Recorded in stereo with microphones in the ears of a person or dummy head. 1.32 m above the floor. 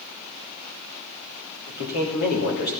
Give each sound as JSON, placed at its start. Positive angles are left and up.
{"t": 1.7, "sound": "a man speaking", "side_deg": 55, "distance_m": 3.0}